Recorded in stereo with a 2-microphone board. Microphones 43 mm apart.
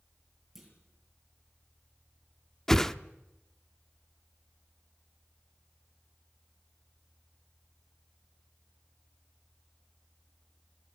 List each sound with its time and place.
0.6 s a clunk: 5° right (ahead or behind), 7.5 m
2.7 s a whoosh: 10° left (ahead or behind), 0.7 m